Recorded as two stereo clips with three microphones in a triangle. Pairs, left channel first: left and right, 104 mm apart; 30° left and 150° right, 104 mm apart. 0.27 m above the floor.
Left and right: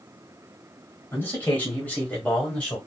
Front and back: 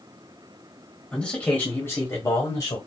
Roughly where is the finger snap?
No finger snap in this recording.